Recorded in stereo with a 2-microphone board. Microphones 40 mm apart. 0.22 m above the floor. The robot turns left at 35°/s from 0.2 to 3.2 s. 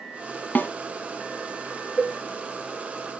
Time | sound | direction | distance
0.6 | a snare drum | 50° left (ahead or behind) | 1.1 m
2.0 | a cowbell | centre (ahead or behind) | 0.7 m